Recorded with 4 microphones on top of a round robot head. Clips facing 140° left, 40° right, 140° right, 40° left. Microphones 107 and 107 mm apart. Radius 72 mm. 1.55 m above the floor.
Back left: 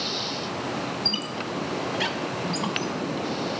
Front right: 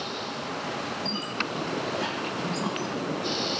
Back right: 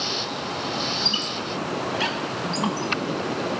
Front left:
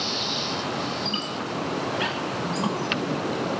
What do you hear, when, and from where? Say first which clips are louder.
1.1 s a squeak: back left 1 dB, even; 165° left, 0.9 m